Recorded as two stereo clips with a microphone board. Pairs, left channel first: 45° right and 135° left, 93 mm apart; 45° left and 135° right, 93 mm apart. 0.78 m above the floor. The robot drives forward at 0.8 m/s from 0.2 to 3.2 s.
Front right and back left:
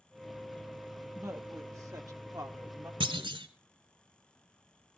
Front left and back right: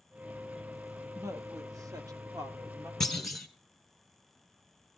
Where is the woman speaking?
175° right, 1.1 m; by 2.9 s straight behind, 2.5 m.